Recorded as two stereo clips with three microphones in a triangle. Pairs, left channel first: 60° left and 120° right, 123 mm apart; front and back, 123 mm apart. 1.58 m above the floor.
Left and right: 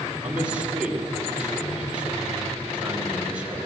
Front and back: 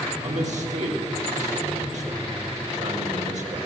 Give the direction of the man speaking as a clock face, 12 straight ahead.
7 o'clock.